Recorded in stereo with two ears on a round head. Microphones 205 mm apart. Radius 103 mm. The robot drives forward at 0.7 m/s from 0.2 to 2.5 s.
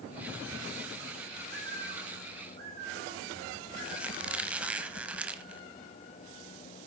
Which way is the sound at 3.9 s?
5° right (ahead or behind).